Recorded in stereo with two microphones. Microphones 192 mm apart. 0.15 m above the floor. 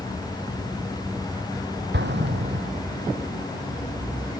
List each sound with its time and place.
1.9 s an explosion: 65° right (ahead or behind)